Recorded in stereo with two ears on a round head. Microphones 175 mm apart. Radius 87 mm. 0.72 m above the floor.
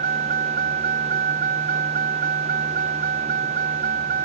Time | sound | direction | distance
0.0 | a vehicle | 45° right (ahead or behind) | ?